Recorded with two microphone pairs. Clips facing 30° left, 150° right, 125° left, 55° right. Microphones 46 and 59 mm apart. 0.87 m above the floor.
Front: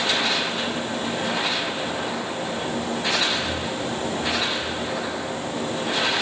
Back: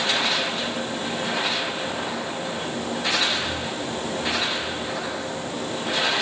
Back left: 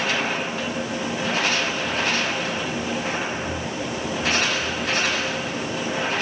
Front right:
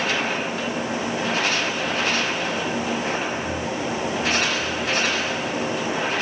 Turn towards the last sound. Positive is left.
No sound to turn to.